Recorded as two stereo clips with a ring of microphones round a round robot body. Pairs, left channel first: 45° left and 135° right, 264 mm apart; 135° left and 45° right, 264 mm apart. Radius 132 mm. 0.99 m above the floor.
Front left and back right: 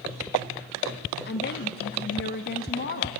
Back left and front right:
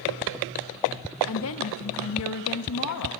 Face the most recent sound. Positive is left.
turn(degrees=100)